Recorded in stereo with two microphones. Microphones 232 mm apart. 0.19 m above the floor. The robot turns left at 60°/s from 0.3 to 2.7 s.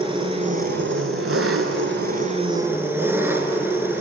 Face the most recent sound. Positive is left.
turn(degrees=-170)